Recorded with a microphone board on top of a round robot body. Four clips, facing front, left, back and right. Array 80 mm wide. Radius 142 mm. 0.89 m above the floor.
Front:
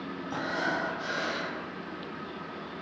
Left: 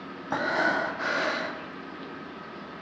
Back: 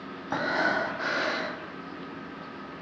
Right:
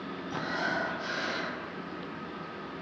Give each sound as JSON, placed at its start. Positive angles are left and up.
{"t": 0.3, "sound": "breathing", "azimuth_deg": 125, "distance_m": 1.9}